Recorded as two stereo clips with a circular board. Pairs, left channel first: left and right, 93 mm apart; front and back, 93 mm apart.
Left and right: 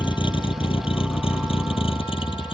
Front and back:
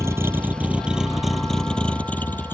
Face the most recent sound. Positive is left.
turn(degrees=65)